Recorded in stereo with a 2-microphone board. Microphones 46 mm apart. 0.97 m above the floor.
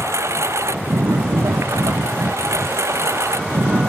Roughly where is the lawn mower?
Right.